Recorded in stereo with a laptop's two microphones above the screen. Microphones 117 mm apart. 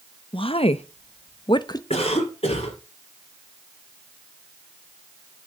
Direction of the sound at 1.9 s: 55° left (ahead or behind).